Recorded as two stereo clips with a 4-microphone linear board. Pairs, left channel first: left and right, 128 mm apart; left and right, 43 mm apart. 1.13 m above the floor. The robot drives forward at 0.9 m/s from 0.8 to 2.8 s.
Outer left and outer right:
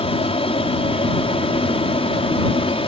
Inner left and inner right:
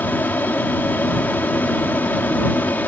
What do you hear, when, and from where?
0.0 s an aircraft: 45° left (ahead or behind)